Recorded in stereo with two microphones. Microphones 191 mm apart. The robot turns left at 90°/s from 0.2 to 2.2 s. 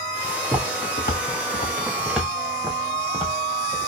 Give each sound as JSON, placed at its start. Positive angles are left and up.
{"t": 0.4, "sound": "footsteps", "side_deg": -20, "distance_m": 1.0}